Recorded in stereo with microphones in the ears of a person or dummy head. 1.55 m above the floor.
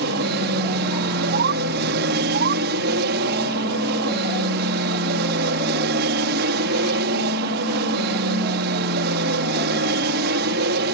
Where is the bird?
50° right (ahead or behind).